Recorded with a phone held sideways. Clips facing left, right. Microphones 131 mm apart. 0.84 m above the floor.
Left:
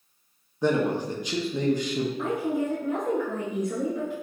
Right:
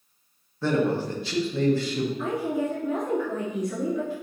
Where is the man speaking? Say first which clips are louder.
Even; 15° left (ahead or behind), 0.7 m.